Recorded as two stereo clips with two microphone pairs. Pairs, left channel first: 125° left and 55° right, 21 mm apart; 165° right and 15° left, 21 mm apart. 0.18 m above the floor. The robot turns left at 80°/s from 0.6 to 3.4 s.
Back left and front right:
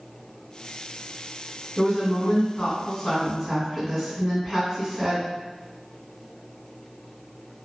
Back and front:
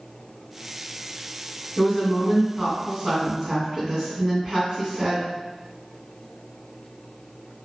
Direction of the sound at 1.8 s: 165° left.